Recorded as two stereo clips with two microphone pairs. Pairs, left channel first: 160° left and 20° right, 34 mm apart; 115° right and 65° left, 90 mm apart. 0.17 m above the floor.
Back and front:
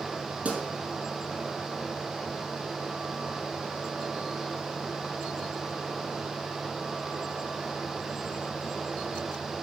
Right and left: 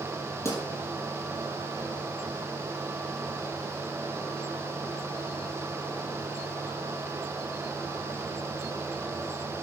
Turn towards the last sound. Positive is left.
turn(degrees=-55)